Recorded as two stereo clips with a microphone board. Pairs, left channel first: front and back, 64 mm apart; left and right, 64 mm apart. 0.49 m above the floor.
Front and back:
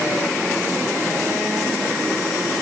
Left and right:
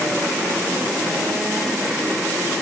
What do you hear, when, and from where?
Only background noise.